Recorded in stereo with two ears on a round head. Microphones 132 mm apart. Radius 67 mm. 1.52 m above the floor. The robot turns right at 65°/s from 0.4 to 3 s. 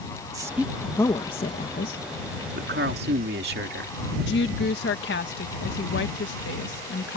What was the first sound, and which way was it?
A woman speaking, 25° right (ahead or behind).